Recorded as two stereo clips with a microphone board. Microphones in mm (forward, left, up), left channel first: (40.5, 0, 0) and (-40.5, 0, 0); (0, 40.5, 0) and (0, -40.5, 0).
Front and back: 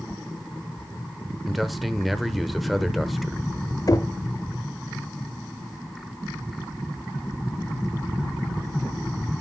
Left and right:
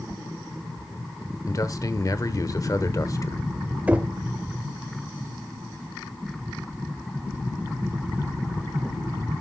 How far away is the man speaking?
About 1.0 m.